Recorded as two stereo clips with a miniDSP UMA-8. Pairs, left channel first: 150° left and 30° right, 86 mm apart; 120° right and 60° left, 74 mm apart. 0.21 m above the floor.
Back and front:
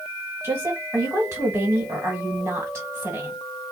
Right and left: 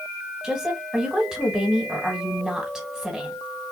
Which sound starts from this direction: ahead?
A woman speaking, at 0.4 s.